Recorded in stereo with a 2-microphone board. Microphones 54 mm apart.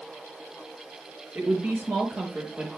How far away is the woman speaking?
About 5.5 m.